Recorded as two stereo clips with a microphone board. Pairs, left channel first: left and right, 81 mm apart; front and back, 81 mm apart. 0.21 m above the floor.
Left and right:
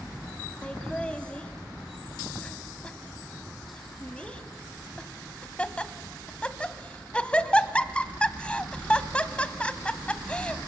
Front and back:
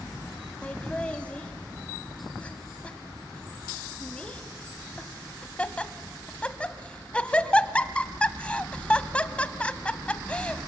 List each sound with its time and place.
0.6 s laughter: 45° left, 1.1 m